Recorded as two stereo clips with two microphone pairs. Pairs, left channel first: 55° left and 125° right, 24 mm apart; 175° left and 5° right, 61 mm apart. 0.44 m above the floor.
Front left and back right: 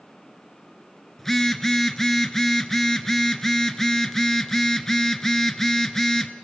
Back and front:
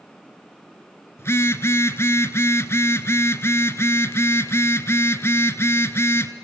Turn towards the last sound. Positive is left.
turn(degrees=125)